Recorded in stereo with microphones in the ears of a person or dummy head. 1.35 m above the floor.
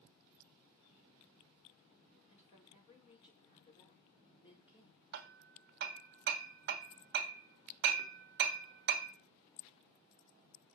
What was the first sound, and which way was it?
A woman speaking, 35° left (ahead or behind).